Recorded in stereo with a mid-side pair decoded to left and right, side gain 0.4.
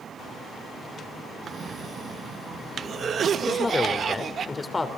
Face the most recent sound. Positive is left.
turn(degrees=30)